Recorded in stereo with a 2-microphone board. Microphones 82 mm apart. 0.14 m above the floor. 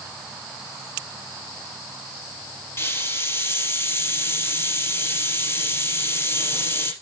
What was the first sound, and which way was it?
A hiss, 30° left (ahead or behind).